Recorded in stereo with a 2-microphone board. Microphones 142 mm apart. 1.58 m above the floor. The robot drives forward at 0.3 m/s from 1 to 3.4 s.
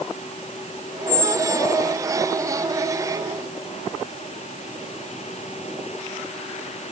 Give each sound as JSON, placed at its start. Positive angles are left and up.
{"t": 1.1, "sound": "a squeak", "side_deg": 45, "distance_m": 2.0}